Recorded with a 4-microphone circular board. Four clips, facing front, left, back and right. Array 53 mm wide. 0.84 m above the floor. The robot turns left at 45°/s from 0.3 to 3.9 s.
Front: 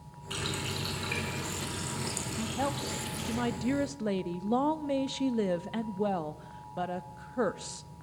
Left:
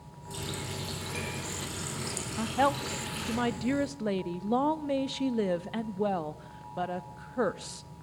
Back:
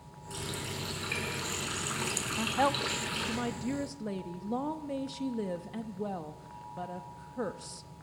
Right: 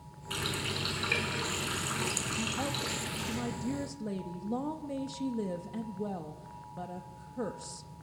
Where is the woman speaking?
130° left, 0.7 m; by 7.9 s 60° left, 0.7 m.